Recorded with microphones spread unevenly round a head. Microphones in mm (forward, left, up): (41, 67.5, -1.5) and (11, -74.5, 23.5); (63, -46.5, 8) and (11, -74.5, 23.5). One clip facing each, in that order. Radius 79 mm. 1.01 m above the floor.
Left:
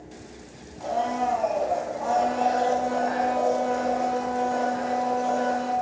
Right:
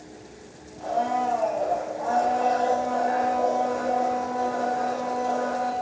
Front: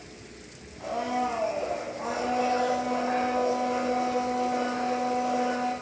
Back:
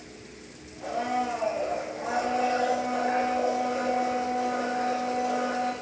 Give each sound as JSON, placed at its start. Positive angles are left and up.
{"t": 0.8, "sound": "a blender", "azimuth_deg": 55, "distance_m": 1.7}